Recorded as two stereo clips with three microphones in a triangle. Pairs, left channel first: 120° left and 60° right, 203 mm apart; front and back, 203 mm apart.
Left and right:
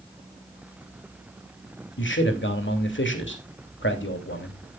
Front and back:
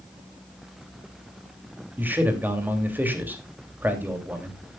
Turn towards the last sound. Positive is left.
turn(degrees=100)